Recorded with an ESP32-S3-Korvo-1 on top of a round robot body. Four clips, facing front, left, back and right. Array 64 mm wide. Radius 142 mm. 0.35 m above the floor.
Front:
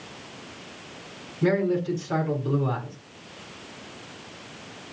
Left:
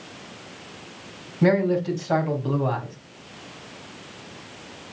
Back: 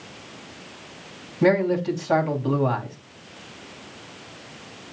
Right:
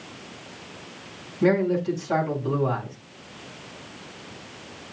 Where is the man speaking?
155° left, 3.5 m.